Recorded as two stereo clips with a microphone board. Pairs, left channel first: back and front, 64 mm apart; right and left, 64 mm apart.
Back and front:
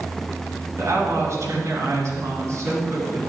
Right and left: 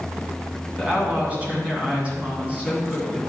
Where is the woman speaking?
25° left, 2 m.